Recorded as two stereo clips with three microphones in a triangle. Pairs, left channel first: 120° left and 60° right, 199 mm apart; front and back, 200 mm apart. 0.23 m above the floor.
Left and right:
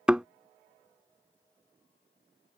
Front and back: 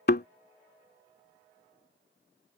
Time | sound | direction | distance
0.1 | a thud | 25° left | ?